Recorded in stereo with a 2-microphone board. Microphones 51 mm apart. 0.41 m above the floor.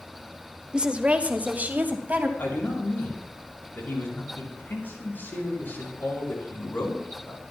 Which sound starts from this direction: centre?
A woman speaking, at 0.7 s.